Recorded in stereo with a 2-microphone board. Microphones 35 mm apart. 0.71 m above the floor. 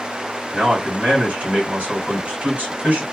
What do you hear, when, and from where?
0.5 s a man speaking: 55° right (ahead or behind), 2.5 m